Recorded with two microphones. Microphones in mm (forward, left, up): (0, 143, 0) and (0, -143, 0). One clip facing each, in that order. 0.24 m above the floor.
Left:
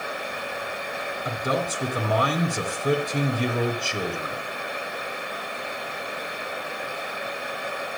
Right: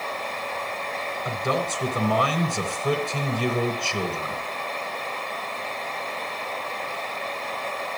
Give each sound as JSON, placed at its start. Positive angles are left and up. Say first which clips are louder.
{"t": 1.2, "sound": "a man speaking", "louder": "even", "side_deg": 20, "distance_m": 2.5}